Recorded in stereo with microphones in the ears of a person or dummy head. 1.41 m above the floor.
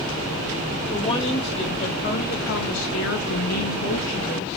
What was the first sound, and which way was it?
A woman speaking, 25° left (ahead or behind).